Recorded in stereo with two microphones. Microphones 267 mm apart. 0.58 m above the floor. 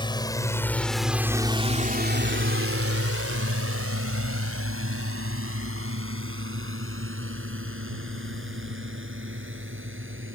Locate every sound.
0.0 s a drone: 15° left (ahead or behind); by 10.3 s 50° right (ahead or behind)